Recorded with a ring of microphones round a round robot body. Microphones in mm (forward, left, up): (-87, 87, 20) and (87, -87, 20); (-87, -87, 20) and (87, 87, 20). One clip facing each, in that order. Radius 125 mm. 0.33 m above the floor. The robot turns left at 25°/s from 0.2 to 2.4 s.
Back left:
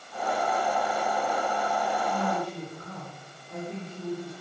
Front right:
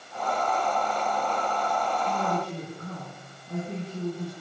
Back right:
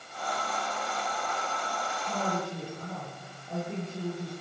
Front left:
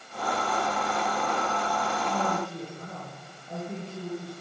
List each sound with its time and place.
2.1 s a woman speaking: 30° right, 9 m; by 4.3 s 35° right, 9 m